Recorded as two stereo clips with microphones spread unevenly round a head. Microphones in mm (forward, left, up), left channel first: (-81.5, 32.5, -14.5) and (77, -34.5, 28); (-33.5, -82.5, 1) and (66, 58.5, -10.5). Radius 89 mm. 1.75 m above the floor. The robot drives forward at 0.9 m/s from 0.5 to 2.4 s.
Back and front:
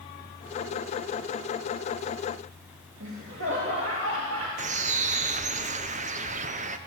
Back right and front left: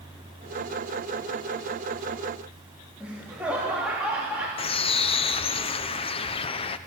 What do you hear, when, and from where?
3.0 s laughter: 30° right, 3.5 m
4.6 s a bird: 70° right, 0.9 m